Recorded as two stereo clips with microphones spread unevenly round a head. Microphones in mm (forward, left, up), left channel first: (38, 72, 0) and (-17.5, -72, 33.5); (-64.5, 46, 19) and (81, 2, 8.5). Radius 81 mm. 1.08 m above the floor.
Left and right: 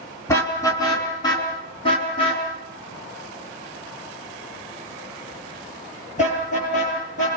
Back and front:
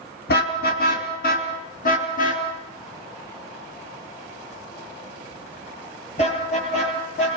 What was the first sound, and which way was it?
A car horn, 145° left.